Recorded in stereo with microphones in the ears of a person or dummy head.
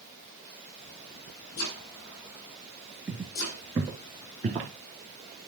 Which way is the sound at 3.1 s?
5° right (ahead or behind).